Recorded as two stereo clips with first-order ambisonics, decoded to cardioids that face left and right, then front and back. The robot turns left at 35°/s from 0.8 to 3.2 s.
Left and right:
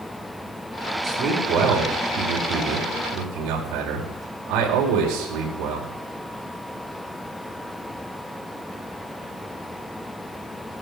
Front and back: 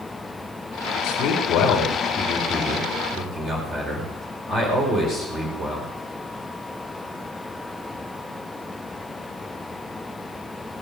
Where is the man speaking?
40° right, 4 m; by 5.9 s 115° right, 4 m.